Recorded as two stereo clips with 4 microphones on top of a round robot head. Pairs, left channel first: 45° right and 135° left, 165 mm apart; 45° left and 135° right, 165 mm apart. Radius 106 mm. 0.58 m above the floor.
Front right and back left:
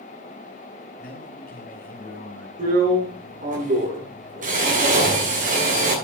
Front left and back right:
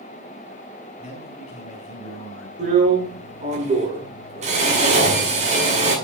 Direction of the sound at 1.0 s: 5° right.